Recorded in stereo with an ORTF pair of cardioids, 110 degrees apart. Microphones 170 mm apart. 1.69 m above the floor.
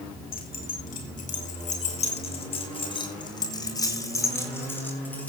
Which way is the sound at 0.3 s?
60° left.